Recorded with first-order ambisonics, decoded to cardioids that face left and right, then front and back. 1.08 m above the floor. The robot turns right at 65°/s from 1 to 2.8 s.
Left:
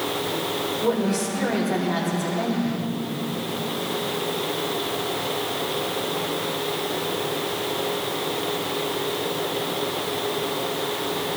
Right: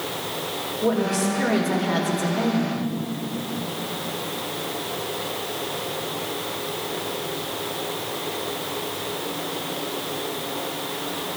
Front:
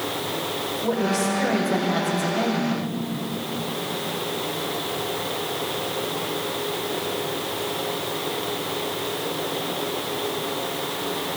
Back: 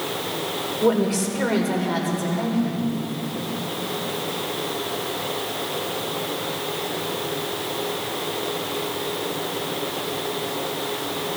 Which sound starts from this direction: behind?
A woman speaking, at 0.8 s.